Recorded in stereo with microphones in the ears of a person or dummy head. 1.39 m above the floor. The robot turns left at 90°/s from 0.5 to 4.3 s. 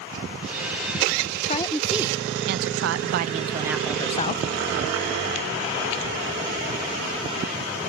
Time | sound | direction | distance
1.4 | a woman speaking | 40° left | ?